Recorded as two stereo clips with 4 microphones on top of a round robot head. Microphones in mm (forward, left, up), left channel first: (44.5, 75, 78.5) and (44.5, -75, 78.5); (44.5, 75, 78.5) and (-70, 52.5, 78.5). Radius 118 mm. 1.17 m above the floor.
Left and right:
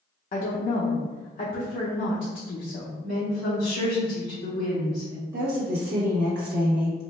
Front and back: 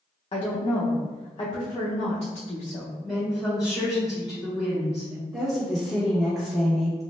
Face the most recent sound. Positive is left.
turn(degrees=-80)